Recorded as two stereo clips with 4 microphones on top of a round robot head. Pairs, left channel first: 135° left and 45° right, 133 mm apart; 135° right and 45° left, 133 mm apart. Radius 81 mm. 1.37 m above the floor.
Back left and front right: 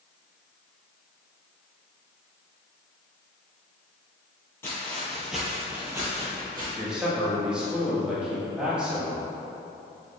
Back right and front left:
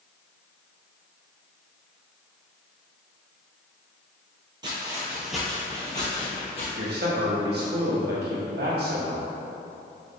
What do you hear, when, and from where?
4.6 s footsteps: 75° left, 1.5 m; by 6.7 s 100° right, 1.8 m
6.8 s a man speaking: 40° left, 1.8 m